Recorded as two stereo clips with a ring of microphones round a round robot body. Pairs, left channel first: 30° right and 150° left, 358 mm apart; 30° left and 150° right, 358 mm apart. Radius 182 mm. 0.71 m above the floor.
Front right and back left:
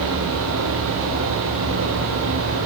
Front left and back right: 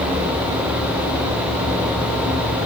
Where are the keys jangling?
No keys jangling in this recording.